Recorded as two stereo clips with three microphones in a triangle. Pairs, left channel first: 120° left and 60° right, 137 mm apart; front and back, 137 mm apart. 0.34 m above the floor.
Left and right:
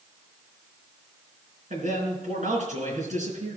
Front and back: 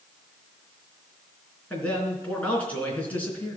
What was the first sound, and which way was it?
A man speaking, 80° right.